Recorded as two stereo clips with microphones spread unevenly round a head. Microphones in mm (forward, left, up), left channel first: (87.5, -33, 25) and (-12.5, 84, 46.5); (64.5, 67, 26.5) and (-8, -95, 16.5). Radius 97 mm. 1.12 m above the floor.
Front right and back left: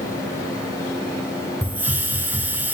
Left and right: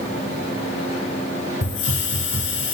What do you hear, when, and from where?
1.6 s a hiss: 55° left, 3 m